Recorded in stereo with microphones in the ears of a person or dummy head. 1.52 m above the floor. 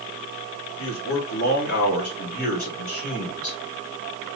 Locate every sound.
0.8 s a man speaking: 80° left, 1.7 m; by 3.6 s 35° left (ahead or behind), 1.7 m